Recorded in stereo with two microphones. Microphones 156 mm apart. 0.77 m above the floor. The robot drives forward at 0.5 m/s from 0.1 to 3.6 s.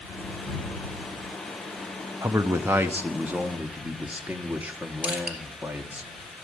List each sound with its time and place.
2.2 s a man speaking: 20° right (ahead or behind), 0.6 m; by 6.0 s 10° right (ahead or behind), 1.1 m
5.0 s crushing: 10° right (ahead or behind), 2 m